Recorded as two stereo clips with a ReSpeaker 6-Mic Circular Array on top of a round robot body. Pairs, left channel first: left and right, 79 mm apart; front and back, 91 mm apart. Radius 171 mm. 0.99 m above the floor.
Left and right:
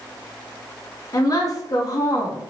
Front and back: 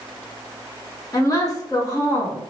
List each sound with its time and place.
1.1 s a woman speaking: 50° left, 0.9 m